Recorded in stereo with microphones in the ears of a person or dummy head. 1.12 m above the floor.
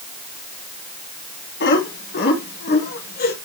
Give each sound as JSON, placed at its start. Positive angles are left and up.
{"t": 1.6, "sound": "laughter", "side_deg": 60, "distance_m": 2.5}